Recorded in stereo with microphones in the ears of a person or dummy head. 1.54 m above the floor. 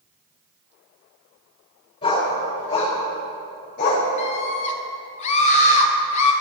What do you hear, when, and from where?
2.0 s a dog barking: 35° left (ahead or behind), 2.5 m; by 4.1 s 50° left (ahead or behind), 1.9 m
4.2 s a scream: 40° left (ahead or behind), 1.3 m